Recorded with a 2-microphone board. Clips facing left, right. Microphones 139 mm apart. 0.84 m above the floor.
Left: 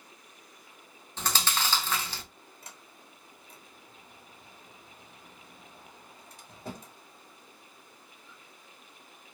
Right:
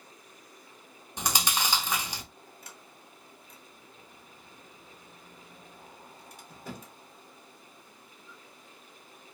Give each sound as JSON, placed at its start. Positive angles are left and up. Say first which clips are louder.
{"t": 1.2, "sound": "chewing", "louder": "right 1 dB", "side_deg": -15, "distance_m": 0.5}
{"t": 2.6, "sound": "a sliding door", "louder": "right 1 dB", "side_deg": 30, "distance_m": 1.1}